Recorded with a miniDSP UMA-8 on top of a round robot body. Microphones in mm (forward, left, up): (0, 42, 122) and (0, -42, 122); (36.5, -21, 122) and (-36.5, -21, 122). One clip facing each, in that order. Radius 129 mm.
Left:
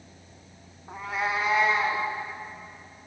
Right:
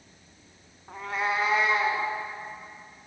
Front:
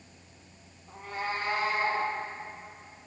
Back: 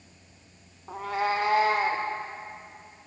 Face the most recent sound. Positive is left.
turn(degrees=-175)